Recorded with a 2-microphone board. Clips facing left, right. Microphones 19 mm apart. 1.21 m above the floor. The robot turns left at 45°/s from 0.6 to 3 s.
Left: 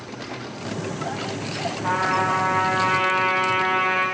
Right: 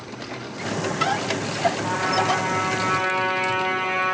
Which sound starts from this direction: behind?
A trumpet, at 1.8 s.